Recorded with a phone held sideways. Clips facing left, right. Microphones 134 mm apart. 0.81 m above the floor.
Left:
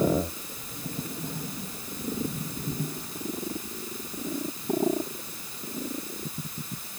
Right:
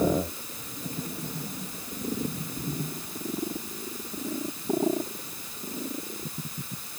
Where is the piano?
I don't hear a piano.